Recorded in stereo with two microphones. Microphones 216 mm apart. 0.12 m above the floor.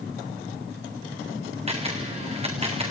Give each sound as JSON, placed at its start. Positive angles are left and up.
{"t": 1.7, "sound": "a camera shutter", "side_deg": -25, "distance_m": 2.5}